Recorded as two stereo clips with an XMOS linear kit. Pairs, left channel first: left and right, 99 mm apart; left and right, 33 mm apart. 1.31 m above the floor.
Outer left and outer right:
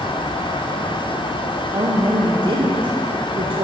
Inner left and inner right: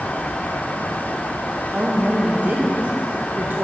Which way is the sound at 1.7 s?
55° right (ahead or behind).